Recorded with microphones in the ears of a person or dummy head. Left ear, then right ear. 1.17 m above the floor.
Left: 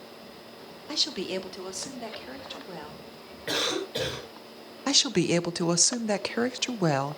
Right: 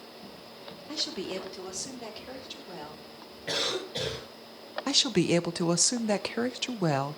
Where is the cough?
20° left (ahead or behind), 9 m.